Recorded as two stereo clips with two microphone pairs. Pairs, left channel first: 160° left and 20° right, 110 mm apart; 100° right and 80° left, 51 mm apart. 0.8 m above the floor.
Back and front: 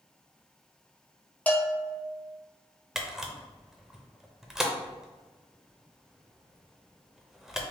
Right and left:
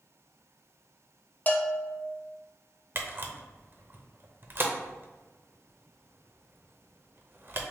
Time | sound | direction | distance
1.5 | a bell | 130° right | 0.6 m
3.0 | a camera shutter | 65° left | 0.6 m